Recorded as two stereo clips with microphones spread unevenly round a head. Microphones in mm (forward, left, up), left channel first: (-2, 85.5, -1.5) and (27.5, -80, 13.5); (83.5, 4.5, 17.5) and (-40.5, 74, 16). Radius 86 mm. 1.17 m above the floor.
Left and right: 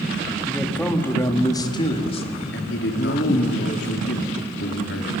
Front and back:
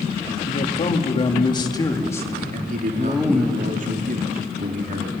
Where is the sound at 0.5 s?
10° left, 2 m; by 3.5 s 65° left, 2 m.